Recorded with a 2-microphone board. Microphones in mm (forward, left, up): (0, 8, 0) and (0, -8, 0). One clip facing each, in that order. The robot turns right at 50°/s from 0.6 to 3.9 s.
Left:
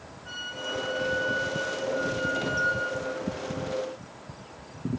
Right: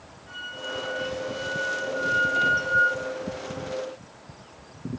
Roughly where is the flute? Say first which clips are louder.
Even; ahead left.